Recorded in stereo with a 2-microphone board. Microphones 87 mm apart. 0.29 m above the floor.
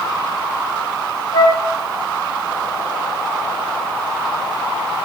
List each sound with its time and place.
1.3 s a flute: 55° left (ahead or behind), 1.4 m